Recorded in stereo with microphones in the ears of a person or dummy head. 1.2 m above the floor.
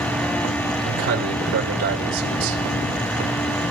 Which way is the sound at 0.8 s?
85° right.